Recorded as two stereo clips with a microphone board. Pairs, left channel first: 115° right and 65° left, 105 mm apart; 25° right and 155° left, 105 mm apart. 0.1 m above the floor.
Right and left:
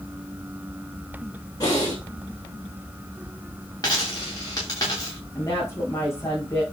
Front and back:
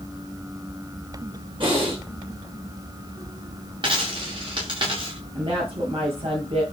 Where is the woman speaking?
175° right, 7.5 m.